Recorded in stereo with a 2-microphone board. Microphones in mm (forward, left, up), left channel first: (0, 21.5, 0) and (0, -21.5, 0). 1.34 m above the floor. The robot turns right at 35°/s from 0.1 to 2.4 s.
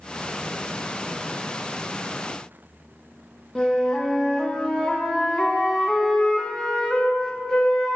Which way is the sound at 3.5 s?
15° left (ahead or behind).